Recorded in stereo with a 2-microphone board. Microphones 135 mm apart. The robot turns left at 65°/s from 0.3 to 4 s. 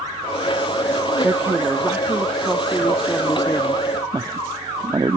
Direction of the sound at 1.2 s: 20° right (ahead or behind).